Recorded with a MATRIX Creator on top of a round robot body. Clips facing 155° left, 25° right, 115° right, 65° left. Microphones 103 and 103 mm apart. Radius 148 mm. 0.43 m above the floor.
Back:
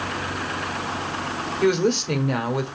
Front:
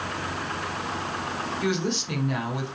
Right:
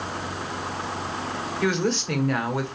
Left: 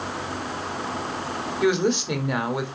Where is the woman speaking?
140° left, 1.7 m.